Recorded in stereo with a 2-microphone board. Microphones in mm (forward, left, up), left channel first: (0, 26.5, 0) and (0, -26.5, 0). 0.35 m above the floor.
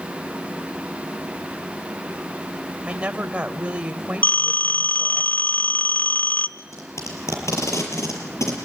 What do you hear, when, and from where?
2.9 s a woman speaking: 20° right (ahead or behind), 1.5 m
4.2 s a phone ringing: 35° left (ahead or behind), 0.9 m
6.6 s tape being pulled: 75° left (ahead or behind), 6 m